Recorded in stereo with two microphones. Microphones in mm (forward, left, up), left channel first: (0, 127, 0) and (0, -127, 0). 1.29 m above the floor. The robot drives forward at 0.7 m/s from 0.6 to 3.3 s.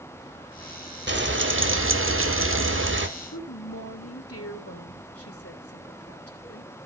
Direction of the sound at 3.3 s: 70° left (ahead or behind).